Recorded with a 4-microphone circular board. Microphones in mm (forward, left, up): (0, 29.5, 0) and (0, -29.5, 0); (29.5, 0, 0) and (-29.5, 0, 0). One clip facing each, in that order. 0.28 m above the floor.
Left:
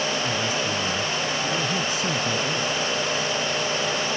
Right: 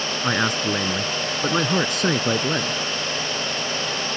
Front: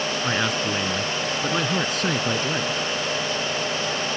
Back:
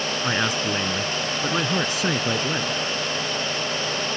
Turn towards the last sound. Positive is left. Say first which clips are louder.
# right 3 dB, back 1 dB
turn(degrees=-95)